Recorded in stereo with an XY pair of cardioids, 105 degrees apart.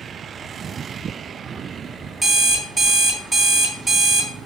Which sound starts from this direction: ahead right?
An alarm clock, at 2.2 s.